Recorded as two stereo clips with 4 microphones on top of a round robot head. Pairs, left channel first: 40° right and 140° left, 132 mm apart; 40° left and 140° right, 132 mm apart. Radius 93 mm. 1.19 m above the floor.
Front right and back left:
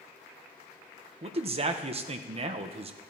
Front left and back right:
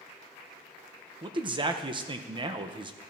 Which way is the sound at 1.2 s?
175° left.